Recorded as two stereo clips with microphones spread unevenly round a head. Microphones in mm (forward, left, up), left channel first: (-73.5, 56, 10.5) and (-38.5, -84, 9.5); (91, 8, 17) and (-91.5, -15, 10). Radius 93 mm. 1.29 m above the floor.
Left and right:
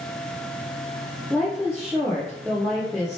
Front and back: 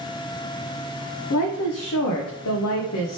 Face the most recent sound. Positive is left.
turn(degrees=10)